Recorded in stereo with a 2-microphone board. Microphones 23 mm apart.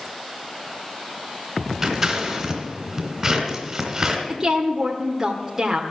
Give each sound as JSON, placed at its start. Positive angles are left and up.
{"t": 1.8, "sound": "scissors", "side_deg": -15, "distance_m": 2.0}
{"t": 4.3, "sound": "a woman speaking", "side_deg": -20, "distance_m": 1.2}